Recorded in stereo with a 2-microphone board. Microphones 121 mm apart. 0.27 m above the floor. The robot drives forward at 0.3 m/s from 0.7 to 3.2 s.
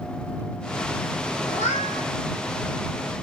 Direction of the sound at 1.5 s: 85° left.